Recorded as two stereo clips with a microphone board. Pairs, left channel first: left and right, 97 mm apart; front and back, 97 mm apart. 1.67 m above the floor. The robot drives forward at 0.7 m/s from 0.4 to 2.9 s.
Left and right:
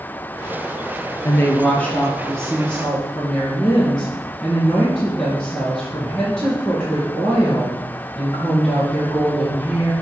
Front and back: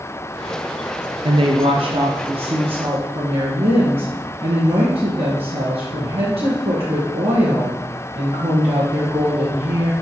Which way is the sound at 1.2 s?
155° left.